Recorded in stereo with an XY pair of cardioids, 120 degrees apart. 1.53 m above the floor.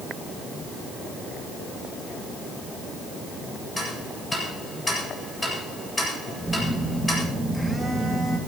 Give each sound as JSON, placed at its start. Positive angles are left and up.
{"t": 3.8, "sound": "ticking", "azimuth_deg": 15, "distance_m": 8.5}
{"t": 6.4, "sound": "a phone buzzing", "azimuth_deg": 5, "distance_m": 2.5}